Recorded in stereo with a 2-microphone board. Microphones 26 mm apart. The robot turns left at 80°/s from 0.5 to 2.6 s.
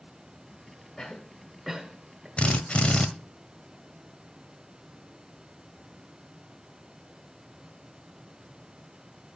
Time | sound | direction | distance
1.0 | a cough | 20° left (ahead or behind) | 1.5 m
2.4 | a drill | 45° left (ahead or behind) | 1.2 m